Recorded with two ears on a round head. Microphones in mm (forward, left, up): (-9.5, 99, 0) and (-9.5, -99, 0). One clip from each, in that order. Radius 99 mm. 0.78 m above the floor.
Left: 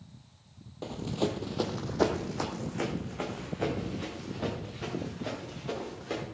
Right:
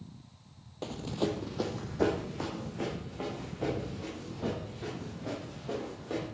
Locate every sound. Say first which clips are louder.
0.8 s running footsteps: left 1 dB; 15° right (ahead or behind), 1.3 m; by 6.2 s 70° left (ahead or behind), 7.5 m